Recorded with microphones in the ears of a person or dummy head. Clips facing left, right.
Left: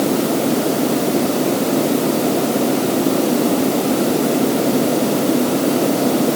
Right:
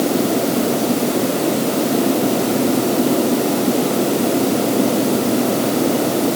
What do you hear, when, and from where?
Only background noise.